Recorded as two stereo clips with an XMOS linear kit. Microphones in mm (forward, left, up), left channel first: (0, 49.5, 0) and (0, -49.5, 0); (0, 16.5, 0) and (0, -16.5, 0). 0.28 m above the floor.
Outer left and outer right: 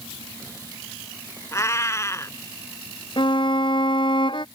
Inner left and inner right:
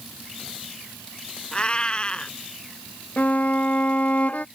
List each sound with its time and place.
1.5 s a cat meowing: 30° left (ahead or behind)
3.2 s a violin: 55° left (ahead or behind)